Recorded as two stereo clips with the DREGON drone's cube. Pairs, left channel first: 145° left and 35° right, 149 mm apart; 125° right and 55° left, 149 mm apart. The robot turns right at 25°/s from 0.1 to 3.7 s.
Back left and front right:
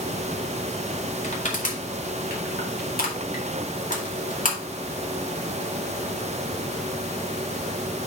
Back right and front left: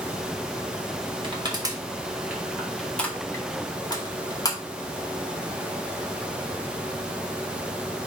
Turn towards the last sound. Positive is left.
turn(degrees=170)